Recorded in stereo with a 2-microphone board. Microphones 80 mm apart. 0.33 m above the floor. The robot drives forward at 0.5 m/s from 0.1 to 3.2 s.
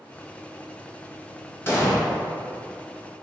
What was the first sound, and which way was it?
An explosion, 30° left (ahead or behind).